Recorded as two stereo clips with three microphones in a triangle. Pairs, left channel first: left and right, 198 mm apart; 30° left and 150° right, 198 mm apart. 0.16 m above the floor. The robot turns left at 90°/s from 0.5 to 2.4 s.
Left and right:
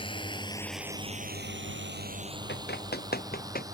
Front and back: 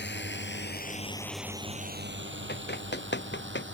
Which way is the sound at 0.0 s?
30° left.